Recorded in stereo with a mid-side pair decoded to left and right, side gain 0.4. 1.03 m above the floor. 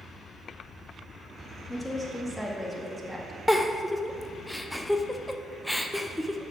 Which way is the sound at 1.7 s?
Straight ahead.